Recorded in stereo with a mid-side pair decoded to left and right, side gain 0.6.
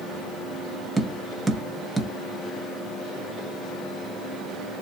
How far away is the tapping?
About 0.7 m.